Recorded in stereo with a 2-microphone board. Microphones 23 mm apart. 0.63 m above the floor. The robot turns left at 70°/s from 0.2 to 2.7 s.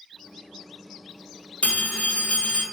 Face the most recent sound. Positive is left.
turn(degrees=25)